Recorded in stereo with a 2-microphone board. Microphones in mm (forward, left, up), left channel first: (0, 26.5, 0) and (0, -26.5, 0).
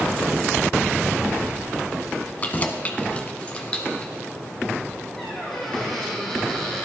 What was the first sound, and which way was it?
Keys jangling, 30° left (ahead or behind).